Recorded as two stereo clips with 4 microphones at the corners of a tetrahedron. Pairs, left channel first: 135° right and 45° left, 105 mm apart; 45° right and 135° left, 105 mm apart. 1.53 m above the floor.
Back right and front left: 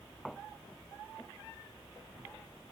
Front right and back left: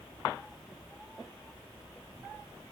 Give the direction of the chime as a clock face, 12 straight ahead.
No chime in this recording.